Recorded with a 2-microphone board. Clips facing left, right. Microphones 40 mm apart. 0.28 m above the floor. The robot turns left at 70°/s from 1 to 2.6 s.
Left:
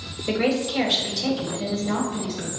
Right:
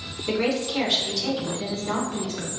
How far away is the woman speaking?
About 2 m.